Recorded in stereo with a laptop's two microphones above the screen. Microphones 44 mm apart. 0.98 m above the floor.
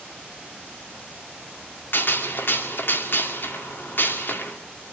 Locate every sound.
1.9 s a gunshot: 55° left (ahead or behind), 2 m